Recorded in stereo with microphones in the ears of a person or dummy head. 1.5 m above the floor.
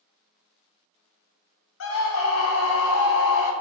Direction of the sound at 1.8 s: 70° left (ahead or behind).